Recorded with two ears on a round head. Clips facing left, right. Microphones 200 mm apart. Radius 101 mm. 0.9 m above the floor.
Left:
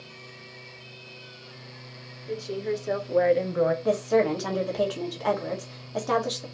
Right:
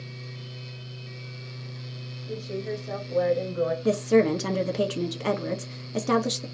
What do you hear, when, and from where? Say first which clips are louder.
2.3 s a woman speaking: left 3 dB; 75° left (ahead or behind), 2.5 m; by 3.8 s 65° left (ahead or behind), 0.9 m
3.9 s a woman speaking: right 2 dB; 35° right (ahead or behind), 0.9 m